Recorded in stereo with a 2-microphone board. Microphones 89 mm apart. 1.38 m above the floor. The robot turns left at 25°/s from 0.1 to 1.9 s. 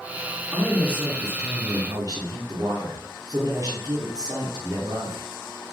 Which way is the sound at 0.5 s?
10° right.